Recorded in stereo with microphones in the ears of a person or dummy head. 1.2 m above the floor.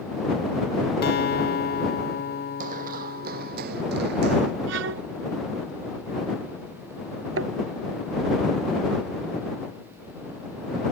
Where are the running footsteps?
50° right (ahead or behind); by 4.5 s 65° right (ahead or behind).